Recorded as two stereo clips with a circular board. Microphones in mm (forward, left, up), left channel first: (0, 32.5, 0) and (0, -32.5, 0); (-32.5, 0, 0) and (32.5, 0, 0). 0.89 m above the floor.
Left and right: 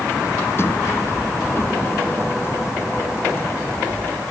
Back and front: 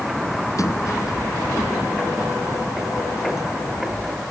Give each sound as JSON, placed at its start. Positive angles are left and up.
{"t": 0.6, "sound": "a sliding door", "azimuth_deg": 140}